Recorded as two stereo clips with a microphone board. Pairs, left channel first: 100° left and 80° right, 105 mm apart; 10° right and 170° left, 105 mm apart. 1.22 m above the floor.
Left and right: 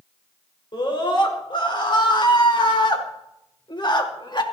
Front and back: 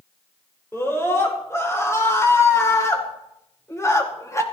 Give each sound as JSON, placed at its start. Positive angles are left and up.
{"t": 0.7, "sound": "a scream", "azimuth_deg": 55, "distance_m": 5.0}